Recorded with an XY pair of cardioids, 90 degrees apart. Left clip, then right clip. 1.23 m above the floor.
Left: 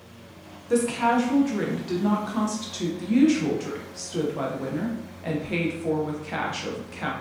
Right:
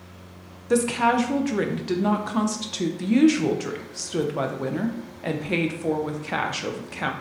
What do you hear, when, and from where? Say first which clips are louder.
0.7 s a woman speaking: right 2 dB; 50° right, 0.7 m